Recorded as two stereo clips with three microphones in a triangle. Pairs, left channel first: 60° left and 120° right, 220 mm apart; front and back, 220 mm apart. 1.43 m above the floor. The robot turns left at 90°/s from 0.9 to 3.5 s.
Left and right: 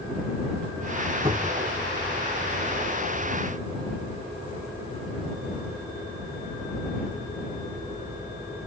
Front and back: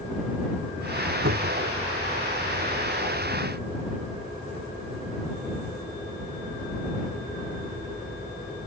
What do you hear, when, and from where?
1.2 s a cupboard door: 175° left; by 1.7 s 140° left